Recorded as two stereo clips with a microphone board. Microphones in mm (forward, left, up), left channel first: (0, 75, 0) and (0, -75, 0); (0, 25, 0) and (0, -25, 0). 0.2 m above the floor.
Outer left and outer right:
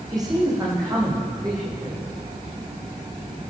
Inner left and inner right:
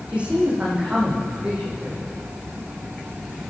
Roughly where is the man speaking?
Right.